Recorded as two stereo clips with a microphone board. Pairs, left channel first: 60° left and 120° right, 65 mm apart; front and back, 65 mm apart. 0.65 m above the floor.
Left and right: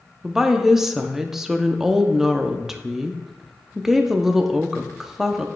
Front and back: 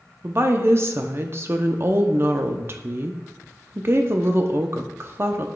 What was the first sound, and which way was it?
A woman speaking, 160° left.